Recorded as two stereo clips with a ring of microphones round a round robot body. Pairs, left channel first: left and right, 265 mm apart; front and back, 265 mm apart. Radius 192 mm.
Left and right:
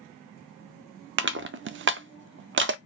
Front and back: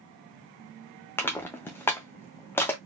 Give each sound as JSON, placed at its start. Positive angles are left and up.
{"t": 1.2, "sound": "crushing", "azimuth_deg": -80, "distance_m": 0.5}